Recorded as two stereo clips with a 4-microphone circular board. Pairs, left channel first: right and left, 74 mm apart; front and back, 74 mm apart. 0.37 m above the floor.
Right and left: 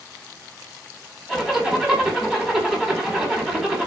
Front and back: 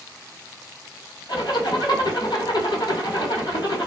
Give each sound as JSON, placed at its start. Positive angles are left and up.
{"t": 1.3, "sound": "a zipper", "azimuth_deg": 5, "distance_m": 1.6}